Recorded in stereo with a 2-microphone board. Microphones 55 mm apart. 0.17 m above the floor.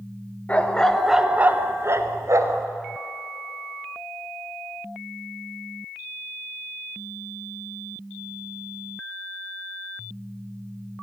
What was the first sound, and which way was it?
A dog barking, 25° left (ahead or behind).